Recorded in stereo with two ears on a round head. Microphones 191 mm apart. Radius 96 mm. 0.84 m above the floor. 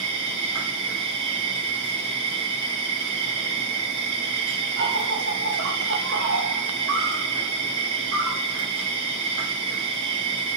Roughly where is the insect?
Right.